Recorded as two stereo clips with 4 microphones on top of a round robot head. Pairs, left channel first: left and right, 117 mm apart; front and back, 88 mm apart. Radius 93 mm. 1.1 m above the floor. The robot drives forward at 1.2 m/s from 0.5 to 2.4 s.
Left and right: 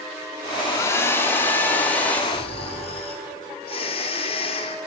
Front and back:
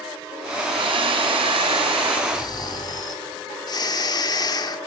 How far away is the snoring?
About 2 m.